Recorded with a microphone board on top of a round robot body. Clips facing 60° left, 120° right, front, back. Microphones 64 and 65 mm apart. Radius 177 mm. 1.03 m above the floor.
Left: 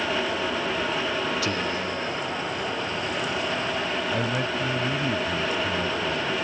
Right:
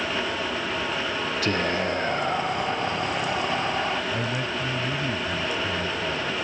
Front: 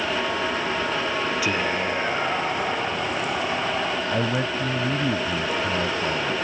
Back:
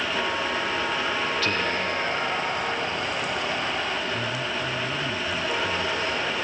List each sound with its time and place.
1.4 s whispering: 75° right
4.1 s a man speaking: 15° right